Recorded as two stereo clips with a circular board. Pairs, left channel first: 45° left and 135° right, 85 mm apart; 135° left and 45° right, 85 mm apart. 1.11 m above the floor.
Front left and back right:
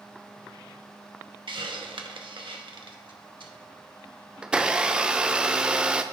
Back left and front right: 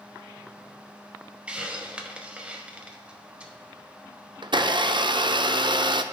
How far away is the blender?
About 0.5 m.